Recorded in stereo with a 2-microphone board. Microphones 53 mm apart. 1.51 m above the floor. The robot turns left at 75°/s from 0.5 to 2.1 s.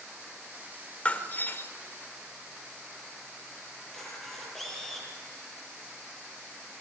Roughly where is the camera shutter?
Centre.